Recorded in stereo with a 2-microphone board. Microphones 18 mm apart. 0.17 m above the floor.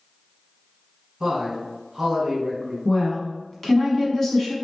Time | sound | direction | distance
1.2 | a man speaking | 30° right (ahead or behind) | 1.2 m
2.9 | a woman speaking | 20° left (ahead or behind) | 1.2 m